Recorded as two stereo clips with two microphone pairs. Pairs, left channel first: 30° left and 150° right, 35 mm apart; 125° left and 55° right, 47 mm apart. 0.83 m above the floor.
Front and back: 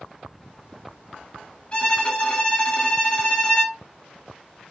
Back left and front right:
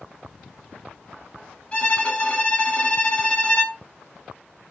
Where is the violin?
85° left, 1.2 m.